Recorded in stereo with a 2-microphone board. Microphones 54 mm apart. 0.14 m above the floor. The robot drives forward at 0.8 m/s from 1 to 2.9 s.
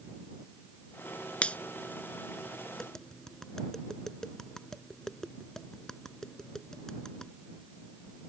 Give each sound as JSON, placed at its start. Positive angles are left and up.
{"t": 1.4, "sound": "a finger snap", "side_deg": 25}
{"t": 2.8, "sound": "tapping", "side_deg": 10}